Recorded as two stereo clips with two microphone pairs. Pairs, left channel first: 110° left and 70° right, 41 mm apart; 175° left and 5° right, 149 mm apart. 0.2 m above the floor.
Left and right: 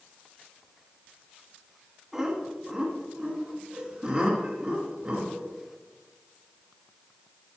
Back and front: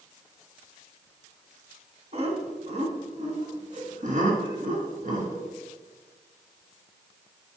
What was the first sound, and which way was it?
Laughter, 5° left.